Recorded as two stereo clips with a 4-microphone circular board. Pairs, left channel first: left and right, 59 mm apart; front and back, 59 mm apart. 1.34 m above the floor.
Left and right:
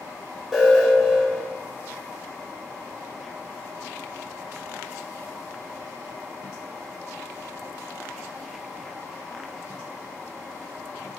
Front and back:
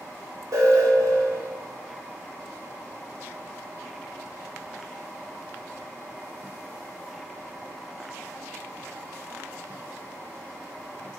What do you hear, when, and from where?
0.5 s an alarm: 175° right, 3.5 m